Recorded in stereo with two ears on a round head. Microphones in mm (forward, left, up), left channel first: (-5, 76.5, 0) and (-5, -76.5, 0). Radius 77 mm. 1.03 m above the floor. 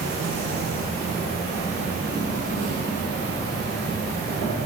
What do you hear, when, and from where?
0.0 s an insect: 60° right (ahead or behind), 2.5 m